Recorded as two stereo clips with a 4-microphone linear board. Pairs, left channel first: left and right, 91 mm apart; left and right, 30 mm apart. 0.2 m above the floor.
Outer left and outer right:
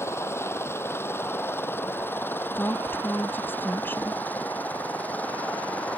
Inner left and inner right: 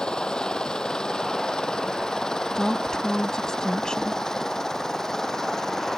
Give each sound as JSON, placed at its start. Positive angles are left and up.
{"t": 0.0, "sound": "a helicopter", "side_deg": 30}
{"t": 2.6, "sound": "a woman speaking", "side_deg": 25}